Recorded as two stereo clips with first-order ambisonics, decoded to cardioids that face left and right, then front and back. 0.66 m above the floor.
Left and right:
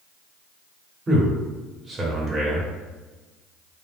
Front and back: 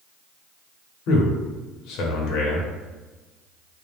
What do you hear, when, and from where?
1.1 s a man speaking: 20° right, 1.1 m